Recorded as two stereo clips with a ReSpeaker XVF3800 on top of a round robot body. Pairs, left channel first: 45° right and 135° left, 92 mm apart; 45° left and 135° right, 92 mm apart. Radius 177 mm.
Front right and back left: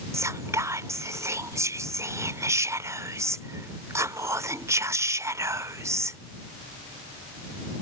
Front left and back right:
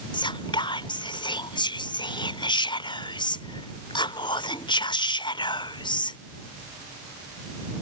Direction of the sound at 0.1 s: 75° left.